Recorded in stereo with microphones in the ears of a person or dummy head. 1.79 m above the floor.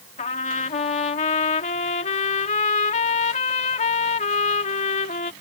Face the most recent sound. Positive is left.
turn(degrees=40)  # may be behind; listen again after turning